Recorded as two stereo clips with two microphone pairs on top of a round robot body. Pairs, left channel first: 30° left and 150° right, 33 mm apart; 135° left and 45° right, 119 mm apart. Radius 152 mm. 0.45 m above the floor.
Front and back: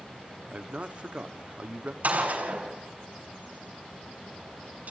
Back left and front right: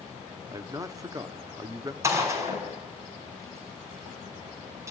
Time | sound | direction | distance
0.5 | a man speaking | 100° right | 1.4 m
2.0 | a gunshot | 115° right | 4.5 m